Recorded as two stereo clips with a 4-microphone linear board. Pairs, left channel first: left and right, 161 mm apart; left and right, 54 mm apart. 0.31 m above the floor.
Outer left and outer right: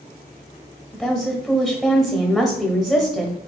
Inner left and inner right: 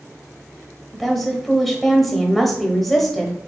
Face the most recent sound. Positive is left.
turn(degrees=-5)  # may be behind; listen again after turning